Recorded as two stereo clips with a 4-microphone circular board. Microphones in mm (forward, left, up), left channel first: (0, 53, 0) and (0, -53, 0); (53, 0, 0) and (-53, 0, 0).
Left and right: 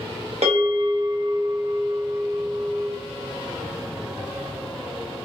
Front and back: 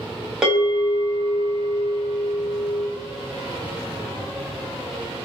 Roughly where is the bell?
Right.